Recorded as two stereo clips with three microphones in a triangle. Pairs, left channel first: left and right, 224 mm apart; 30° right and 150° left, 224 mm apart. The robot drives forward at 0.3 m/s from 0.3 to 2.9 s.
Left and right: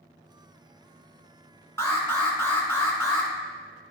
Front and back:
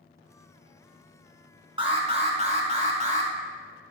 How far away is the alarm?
About 1.4 m.